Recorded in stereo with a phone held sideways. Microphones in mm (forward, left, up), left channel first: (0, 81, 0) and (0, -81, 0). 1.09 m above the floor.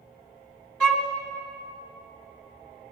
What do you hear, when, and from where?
0.8 s a violin: 5° left (ahead or behind), 1.0 m